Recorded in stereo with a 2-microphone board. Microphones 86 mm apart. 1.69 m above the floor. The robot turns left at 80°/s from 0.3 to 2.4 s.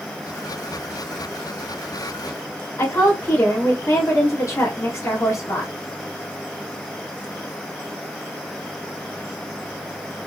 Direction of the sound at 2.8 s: 35° left (ahead or behind).